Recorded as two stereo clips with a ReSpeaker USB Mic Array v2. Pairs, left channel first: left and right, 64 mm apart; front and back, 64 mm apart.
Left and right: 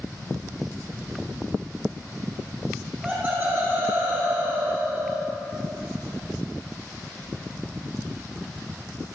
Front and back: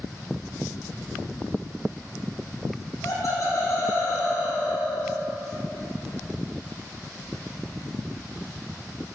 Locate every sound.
2.8 s laughter: 15° right, 4.5 m; by 5.2 s 30° right, 5.5 m